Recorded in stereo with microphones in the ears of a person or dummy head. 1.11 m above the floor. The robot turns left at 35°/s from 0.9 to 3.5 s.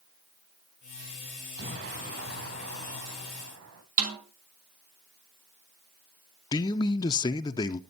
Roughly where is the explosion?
Ahead right.